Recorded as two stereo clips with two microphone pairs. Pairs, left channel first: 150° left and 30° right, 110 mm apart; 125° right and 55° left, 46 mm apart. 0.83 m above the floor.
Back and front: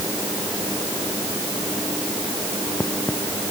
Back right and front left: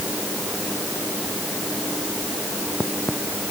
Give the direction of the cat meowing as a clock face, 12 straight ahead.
I don't hear a cat meowing.